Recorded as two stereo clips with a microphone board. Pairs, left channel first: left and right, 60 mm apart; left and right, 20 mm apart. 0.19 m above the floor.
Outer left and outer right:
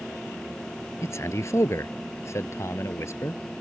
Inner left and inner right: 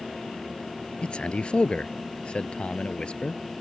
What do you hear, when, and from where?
1.0 s a man speaking: 55° left (ahead or behind)